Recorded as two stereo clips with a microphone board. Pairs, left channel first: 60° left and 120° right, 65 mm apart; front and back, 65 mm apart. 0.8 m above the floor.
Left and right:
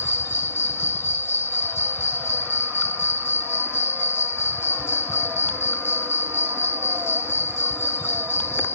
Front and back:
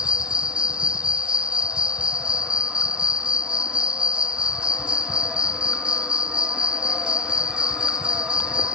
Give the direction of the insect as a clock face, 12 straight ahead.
8 o'clock.